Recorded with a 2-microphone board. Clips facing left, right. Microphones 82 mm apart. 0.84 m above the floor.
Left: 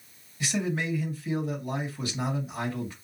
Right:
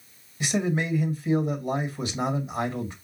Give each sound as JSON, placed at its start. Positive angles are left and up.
{"t": 0.4, "sound": "a man speaking", "side_deg": -25, "distance_m": 1.5}